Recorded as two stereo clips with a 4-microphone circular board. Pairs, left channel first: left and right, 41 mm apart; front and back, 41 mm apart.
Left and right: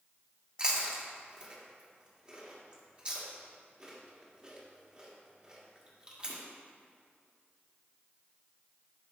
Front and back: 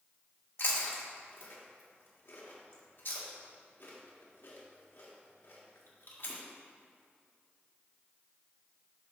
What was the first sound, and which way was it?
Chewing, 30° right.